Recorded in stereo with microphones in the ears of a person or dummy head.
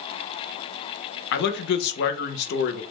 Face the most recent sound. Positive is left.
turn(degrees=60)  # may be behind; listen again after turning